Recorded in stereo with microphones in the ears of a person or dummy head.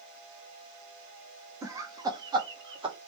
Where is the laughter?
10° right (ahead or behind), 0.8 m; by 3.0 s 15° right (ahead or behind), 1.5 m.